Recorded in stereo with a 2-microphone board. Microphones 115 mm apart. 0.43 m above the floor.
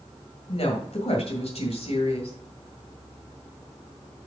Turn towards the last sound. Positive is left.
turn(degrees=65)  # may be behind; listen again after turning